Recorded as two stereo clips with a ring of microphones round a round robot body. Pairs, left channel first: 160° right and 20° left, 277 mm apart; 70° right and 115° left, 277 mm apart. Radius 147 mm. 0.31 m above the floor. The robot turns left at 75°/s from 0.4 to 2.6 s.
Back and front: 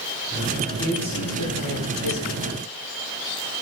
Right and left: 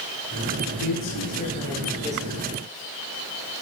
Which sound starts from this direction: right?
A man speaking, at 0.8 s.